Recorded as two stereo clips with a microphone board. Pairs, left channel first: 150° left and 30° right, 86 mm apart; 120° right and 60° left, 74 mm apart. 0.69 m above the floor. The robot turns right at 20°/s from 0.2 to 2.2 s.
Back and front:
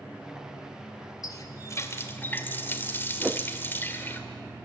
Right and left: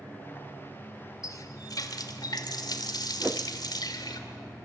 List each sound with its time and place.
1.2 s a running tap: 165° right, 1.8 m; by 4.2 s 145° right, 1.8 m
3.2 s a whoosh: 25° left, 0.5 m